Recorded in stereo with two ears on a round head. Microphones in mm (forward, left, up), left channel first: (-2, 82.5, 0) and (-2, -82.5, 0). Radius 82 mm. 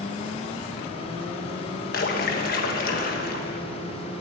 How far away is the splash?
About 1.4 m.